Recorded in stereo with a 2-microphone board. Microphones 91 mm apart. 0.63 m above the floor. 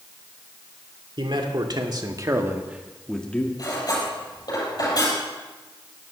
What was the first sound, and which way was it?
A man speaking, 60° right (ahead or behind).